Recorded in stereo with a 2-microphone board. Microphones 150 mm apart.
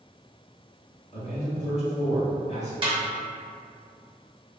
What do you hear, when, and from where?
1.1 s a man speaking: 45° left (ahead or behind), 1.1 m
2.8 s a snare drum: 35° right (ahead or behind), 0.8 m